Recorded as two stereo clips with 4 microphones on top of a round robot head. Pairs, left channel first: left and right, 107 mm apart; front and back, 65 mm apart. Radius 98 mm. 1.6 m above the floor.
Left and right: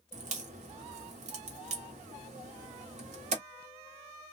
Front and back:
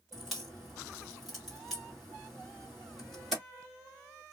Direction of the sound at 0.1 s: 95° right.